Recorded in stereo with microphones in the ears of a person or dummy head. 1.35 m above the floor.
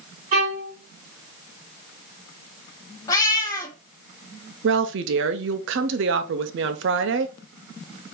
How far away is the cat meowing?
About 1.3 m.